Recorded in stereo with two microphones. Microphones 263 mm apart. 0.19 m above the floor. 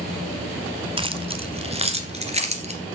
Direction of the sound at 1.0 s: 20° right (ahead or behind).